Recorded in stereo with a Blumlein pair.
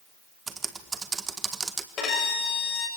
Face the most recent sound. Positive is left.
turn(degrees=25)